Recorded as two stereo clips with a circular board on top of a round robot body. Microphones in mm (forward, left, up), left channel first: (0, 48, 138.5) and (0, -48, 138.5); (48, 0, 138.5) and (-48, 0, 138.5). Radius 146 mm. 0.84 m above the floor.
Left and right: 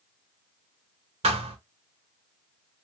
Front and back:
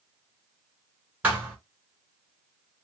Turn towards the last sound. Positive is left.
turn(degrees=-105)